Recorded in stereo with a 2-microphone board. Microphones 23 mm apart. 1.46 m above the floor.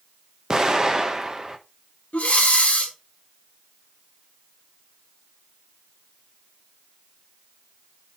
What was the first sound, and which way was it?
An explosion, 25° right (ahead or behind).